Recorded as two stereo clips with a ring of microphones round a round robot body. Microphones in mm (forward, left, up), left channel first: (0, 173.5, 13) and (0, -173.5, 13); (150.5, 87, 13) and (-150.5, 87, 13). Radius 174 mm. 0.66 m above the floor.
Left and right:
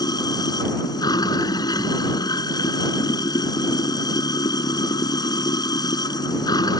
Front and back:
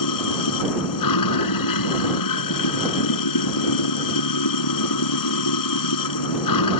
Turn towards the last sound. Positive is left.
turn(degrees=10)